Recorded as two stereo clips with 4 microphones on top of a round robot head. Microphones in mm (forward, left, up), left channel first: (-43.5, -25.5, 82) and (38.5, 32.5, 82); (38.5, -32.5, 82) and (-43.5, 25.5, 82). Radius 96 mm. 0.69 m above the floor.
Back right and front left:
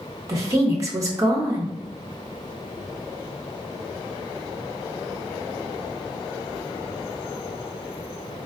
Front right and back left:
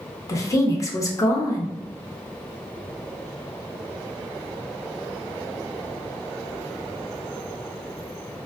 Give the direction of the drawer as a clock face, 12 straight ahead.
I don't hear a drawer.